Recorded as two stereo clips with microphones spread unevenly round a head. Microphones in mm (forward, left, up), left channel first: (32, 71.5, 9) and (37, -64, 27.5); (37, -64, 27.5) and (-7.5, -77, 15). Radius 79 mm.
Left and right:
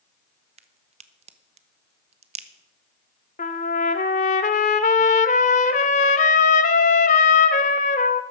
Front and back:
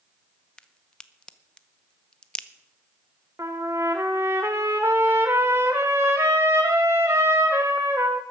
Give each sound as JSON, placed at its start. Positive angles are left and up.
{"t": 0.6, "sound": "a crack", "azimuth_deg": -65, "distance_m": 1.0}
{"t": 3.4, "sound": "a trumpet", "azimuth_deg": 130, "distance_m": 0.8}